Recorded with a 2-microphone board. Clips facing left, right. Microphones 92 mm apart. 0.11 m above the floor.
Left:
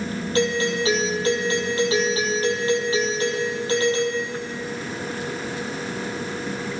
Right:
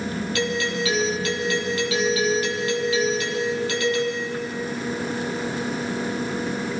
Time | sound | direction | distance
0.3 | a doorbell | 35° left (ahead or behind) | 3.5 m